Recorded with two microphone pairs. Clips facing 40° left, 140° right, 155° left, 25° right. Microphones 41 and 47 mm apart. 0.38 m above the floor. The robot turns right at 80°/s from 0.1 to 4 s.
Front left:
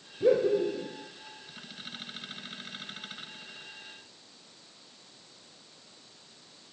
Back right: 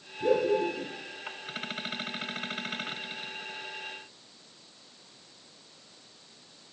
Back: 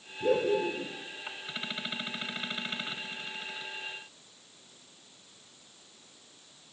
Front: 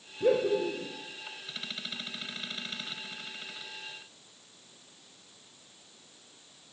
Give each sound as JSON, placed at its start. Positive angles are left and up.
{"t": 0.2, "sound": "laughter", "azimuth_deg": 0, "distance_m": 1.2}